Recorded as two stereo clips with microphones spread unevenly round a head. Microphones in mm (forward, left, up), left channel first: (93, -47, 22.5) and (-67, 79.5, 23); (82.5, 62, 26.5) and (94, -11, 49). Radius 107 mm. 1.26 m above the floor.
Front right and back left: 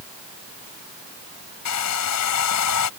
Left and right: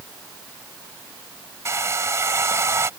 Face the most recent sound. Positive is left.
turn(degrees=-35)